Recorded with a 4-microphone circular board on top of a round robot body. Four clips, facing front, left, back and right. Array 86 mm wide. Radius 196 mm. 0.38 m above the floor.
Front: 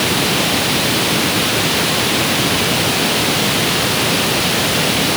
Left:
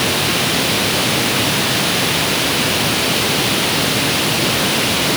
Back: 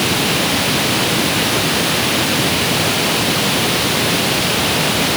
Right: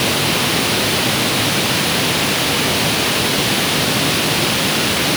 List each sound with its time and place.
Only background noise.